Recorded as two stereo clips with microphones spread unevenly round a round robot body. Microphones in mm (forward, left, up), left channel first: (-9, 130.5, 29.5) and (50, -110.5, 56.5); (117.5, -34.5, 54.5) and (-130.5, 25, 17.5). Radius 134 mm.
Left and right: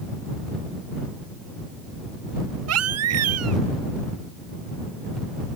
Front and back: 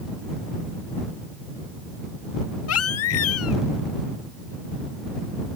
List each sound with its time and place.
2.7 s a baby crying: 50° right